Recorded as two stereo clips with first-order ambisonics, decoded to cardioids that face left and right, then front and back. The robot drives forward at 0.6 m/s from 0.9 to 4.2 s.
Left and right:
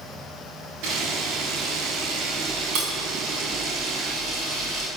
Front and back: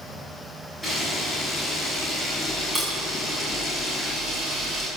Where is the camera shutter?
95° right, 6.5 m; by 4.9 s 110° right, 7 m.